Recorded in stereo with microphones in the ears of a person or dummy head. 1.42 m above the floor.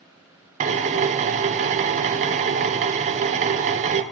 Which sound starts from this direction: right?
A drill, at 0.6 s.